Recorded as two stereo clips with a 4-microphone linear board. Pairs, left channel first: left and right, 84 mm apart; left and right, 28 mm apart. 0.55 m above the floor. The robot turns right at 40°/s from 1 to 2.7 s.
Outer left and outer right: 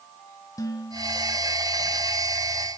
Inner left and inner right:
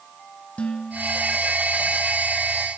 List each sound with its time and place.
0.6 s dishes clattering: 45° left (ahead or behind), 3.5 m; by 1.4 s 60° left (ahead or behind), 3.5 m